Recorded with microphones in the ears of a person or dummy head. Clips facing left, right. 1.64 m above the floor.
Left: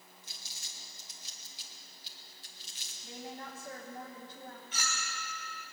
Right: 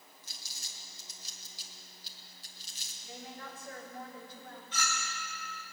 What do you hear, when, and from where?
0.2 s crumpling: 35° right (ahead or behind), 1.8 m
3.0 s a woman speaking: 25° left (ahead or behind), 2.5 m
4.7 s a clink: 15° left (ahead or behind), 3.5 m